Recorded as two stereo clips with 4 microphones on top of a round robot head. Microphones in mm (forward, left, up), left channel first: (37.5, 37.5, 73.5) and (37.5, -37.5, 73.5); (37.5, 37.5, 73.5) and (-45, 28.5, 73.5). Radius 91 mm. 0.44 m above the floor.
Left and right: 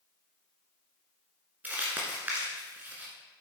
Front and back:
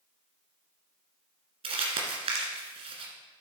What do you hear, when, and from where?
1.6 s crumpling: 160° right, 1.7 m